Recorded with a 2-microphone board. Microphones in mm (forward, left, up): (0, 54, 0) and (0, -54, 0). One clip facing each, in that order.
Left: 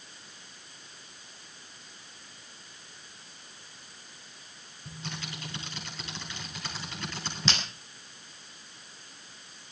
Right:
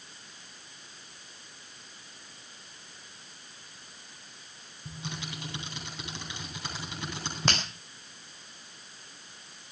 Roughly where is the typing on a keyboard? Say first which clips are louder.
Right 1 dB; centre.